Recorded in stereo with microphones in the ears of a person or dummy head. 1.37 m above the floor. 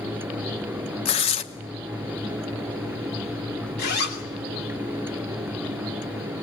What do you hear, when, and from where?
1.1 s tearing paper: 35° left (ahead or behind), 1.0 m
3.8 s a zipper: 50° left (ahead or behind), 2.5 m